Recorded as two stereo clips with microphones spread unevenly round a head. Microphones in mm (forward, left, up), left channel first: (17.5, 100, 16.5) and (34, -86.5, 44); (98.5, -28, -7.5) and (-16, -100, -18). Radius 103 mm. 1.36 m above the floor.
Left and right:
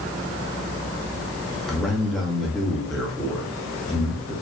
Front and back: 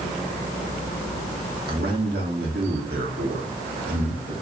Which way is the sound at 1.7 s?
175° right.